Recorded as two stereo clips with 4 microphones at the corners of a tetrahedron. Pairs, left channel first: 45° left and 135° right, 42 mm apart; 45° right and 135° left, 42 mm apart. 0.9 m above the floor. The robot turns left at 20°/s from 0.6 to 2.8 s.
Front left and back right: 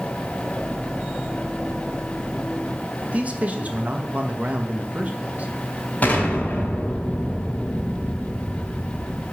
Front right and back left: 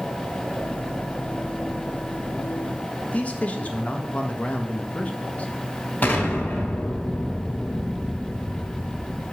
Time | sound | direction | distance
3.0 | a man speaking | 90° right | 1.2 m
6.0 | an explosion | 5° right | 2.5 m